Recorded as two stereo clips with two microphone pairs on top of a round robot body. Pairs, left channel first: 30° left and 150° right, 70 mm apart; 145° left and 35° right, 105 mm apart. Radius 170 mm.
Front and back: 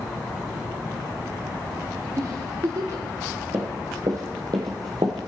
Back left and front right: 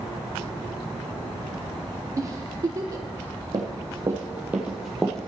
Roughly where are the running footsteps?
Right.